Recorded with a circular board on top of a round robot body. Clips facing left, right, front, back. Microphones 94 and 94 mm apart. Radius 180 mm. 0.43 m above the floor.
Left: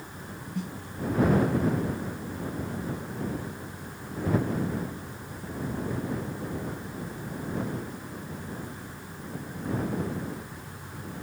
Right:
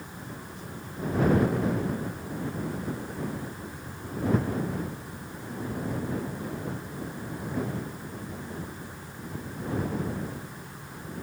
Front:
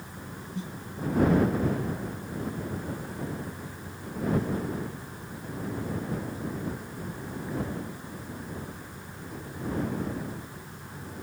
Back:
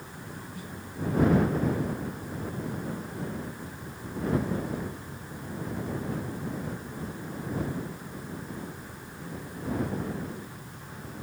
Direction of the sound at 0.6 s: 65° left.